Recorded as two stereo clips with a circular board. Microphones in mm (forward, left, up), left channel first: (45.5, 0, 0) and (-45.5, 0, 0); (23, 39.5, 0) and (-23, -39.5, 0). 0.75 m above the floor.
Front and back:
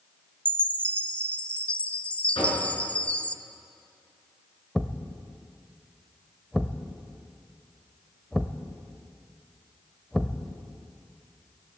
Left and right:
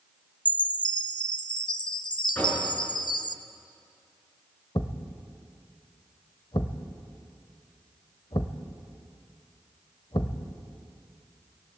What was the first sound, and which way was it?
A chime, 75° left.